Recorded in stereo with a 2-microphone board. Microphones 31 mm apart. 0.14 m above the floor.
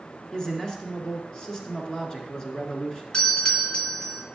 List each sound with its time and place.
0.3 s a man speaking: 25° left (ahead or behind), 1.7 m
3.1 s a doorbell: 30° left (ahead or behind), 1.9 m